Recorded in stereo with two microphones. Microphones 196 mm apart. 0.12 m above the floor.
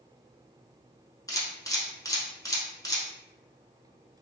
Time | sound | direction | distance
1.3 | a camera shutter | 20° left (ahead or behind) | 0.8 m